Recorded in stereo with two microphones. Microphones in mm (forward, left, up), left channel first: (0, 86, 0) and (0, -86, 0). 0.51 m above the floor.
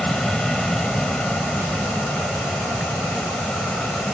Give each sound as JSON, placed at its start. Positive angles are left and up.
{"t": 0.0, "sound": "an aircraft", "side_deg": 5}